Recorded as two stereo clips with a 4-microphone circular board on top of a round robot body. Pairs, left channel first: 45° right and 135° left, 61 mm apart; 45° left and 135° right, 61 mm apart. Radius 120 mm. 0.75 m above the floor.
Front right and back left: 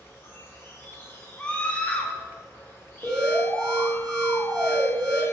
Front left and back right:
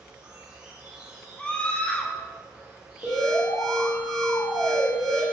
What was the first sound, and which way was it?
An insect, 65° right.